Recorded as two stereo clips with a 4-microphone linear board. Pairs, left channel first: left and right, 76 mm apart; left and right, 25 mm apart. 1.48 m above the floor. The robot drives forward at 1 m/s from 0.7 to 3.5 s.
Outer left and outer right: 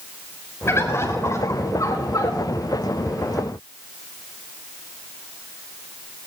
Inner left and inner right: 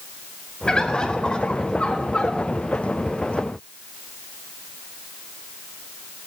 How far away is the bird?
About 4.5 m.